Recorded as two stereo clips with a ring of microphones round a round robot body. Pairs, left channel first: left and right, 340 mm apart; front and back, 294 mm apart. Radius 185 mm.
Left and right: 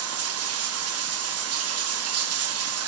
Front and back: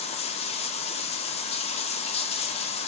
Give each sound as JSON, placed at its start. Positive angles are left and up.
{"t": 0.0, "sound": "running water", "azimuth_deg": -60, "distance_m": 0.7}